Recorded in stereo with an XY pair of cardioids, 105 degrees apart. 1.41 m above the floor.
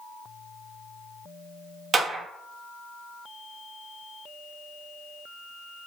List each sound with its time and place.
1.9 s a clap: 35° right, 2.5 m